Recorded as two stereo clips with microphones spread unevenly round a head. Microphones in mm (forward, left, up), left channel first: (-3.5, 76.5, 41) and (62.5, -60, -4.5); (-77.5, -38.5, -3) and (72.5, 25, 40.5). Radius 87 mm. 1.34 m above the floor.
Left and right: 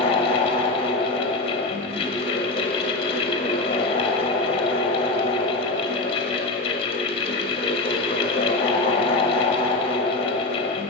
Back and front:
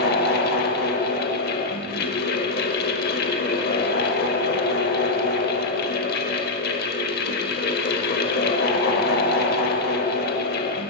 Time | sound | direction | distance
0.0 | a fan | 165° left | 0.8 m